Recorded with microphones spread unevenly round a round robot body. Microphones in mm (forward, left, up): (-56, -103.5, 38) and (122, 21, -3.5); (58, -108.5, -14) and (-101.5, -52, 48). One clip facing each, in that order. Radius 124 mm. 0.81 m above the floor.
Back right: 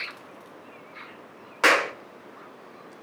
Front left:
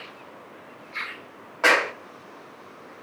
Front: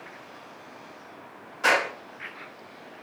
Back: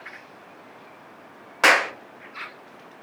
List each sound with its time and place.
1.6 s a clap: 160° left, 0.7 m